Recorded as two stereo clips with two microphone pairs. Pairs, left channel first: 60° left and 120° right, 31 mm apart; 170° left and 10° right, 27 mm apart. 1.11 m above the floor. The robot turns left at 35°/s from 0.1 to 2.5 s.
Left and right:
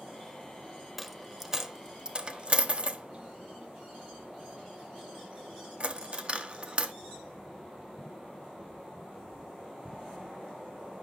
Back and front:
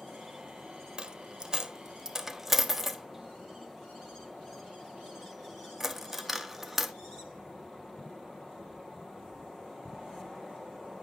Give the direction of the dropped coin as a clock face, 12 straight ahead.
1 o'clock.